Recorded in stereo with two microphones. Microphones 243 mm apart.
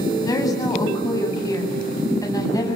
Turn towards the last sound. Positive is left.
turn(degrees=15)  # may be behind; listen again after turning